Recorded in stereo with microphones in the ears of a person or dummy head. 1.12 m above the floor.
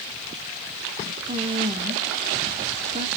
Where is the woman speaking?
30° right (ahead or behind), 0.8 m.